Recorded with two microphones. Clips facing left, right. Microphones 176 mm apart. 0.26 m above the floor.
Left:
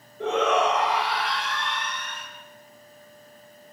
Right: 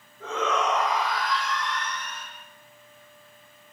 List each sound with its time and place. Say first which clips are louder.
0.2 s a shout: left 5 dB; 80° left, 7 m; by 2.3 s 75° left (ahead or behind), 7 m